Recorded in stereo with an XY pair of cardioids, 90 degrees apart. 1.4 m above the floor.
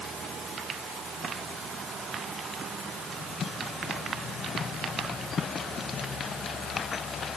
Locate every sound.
Only background noise.